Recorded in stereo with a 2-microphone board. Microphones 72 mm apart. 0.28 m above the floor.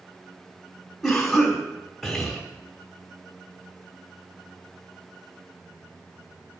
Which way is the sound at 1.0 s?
Centre (ahead or behind).